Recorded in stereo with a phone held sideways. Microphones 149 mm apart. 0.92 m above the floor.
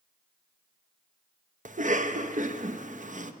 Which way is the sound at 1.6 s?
55° right (ahead or behind).